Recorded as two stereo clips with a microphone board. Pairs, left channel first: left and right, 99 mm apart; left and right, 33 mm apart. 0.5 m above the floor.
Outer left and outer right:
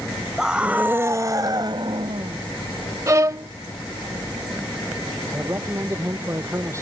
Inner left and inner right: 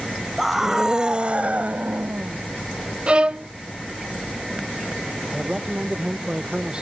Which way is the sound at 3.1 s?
35° right (ahead or behind).